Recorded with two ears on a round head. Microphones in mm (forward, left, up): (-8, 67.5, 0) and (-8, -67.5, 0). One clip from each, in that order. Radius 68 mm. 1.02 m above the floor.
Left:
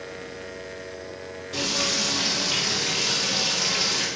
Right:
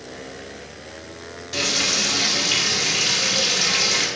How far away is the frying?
About 2.5 m.